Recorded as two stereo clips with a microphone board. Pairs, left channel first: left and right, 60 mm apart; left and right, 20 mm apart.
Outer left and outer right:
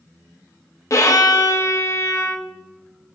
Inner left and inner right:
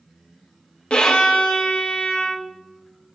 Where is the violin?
55° left (ahead or behind), 0.9 m.